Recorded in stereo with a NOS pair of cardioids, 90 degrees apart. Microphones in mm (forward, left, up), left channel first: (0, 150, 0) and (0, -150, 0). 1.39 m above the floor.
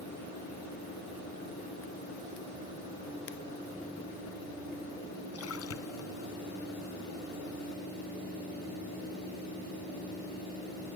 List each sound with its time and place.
5.3 s a splash: 50° left